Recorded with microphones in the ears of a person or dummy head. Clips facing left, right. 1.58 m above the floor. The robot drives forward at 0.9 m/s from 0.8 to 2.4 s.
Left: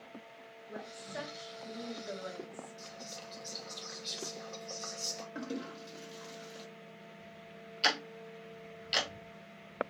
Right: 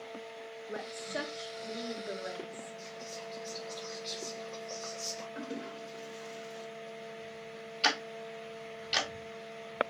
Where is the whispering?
25° left (ahead or behind), 2 m.